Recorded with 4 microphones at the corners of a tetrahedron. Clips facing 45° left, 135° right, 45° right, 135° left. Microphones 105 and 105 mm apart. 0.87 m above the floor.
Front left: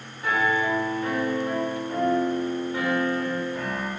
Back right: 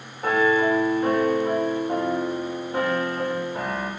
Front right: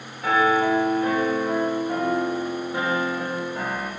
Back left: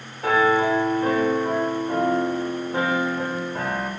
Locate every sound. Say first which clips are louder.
0.2 s a piano: back right 4 dB, back left 1 dB; straight behind, 3.5 m